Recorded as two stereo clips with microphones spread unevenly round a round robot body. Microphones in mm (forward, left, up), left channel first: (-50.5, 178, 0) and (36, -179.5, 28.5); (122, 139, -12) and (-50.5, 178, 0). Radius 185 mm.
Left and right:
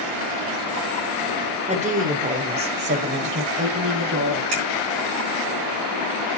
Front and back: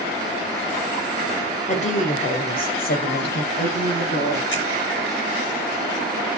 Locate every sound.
1.7 s a woman speaking: 5° right, 1.6 m; by 4.4 s 20° right, 3 m
4.5 s a finger snap: 50° right, 5 m